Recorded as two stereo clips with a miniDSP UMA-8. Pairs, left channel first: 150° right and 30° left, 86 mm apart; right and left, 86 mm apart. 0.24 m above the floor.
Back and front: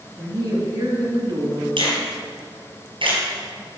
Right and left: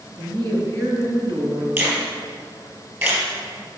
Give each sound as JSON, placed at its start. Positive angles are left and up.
{"t": 0.2, "sound": "a woman speaking", "azimuth_deg": 65, "distance_m": 3.0}
{"t": 1.8, "sound": "a finger snap", "azimuth_deg": 30, "distance_m": 3.5}